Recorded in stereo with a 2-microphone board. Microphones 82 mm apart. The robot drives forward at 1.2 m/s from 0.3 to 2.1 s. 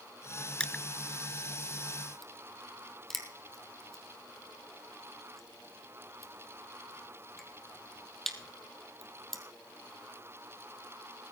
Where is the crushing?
10° left (ahead or behind), 0.7 m; by 9.4 s 5° left (ahead or behind), 1.7 m.